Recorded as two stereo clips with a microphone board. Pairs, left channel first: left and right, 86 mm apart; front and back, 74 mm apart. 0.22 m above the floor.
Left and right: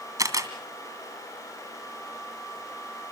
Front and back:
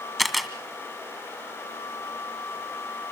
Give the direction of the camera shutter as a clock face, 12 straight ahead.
3 o'clock.